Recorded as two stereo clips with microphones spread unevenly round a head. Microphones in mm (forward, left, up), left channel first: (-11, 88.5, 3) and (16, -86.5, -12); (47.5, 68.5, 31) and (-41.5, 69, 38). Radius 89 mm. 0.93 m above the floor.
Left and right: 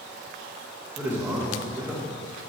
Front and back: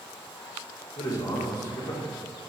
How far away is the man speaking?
About 1.3 m.